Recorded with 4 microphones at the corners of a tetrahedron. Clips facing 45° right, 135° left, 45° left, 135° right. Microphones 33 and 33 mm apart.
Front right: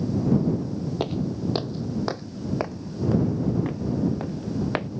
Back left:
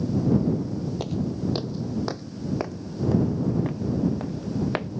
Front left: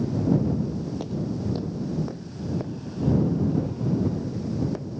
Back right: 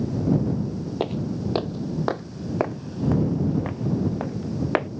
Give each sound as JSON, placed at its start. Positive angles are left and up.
{"t": 1.0, "sound": "footsteps", "azimuth_deg": -105}